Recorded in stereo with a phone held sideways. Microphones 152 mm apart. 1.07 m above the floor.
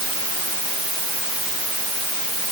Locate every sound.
Only background noise.